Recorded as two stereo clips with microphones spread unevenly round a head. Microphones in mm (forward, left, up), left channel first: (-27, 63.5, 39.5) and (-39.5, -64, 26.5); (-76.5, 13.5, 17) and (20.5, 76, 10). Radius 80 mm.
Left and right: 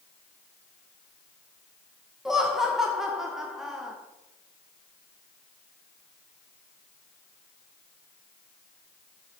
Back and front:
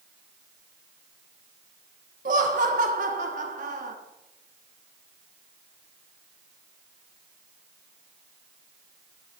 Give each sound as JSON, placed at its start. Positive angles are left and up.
{"t": 2.2, "sound": "laughter", "azimuth_deg": -10, "distance_m": 0.6}